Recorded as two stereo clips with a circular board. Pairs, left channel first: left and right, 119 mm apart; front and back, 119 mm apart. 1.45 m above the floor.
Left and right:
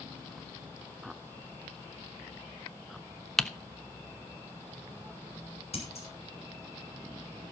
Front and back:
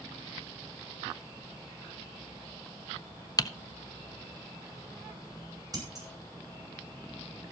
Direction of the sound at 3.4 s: 10° left.